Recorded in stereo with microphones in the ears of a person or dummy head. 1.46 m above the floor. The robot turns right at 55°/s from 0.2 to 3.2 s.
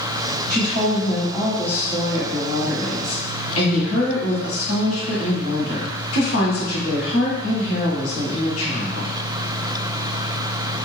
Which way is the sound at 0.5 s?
55° right.